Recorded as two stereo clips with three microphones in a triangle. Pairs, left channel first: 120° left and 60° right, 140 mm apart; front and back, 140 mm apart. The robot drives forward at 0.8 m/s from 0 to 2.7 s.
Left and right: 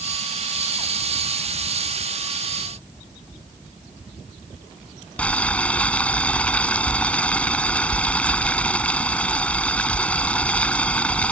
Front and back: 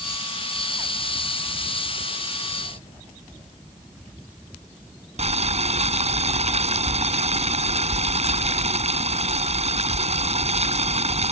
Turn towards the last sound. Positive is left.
turn(degrees=-160)